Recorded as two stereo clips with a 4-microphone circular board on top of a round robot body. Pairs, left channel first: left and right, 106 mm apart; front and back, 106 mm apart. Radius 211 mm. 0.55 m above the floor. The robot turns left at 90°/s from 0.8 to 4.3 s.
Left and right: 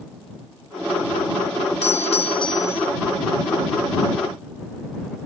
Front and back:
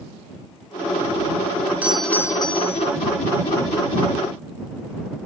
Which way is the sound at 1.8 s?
105° left.